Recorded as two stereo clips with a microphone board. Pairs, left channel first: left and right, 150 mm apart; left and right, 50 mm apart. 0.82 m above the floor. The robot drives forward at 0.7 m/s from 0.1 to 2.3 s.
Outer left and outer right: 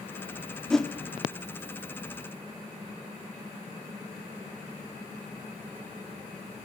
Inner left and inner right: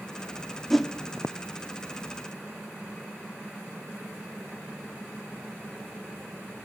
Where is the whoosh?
5° left (ahead or behind), 0.9 m.